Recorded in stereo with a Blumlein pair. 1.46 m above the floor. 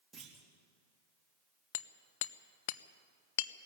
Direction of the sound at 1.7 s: 50° left.